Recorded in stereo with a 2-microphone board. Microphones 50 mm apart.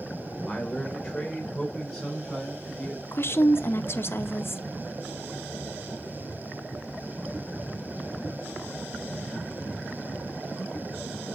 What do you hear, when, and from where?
0.5 s a man speaking: 10° left (ahead or behind), 3 m; by 3.0 s centre (ahead or behind), 4.5 m
3.1 s a woman speaking: 55° left (ahead or behind), 0.7 m